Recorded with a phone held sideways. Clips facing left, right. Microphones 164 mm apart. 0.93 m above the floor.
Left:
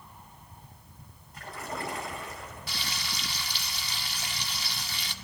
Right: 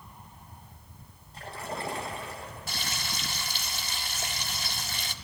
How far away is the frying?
About 1.4 m.